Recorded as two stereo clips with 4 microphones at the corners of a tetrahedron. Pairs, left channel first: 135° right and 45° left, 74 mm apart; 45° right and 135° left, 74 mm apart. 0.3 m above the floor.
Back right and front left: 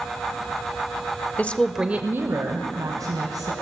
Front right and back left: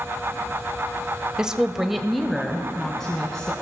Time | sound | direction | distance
1.4 | a woman speaking | 160° right | 1.1 m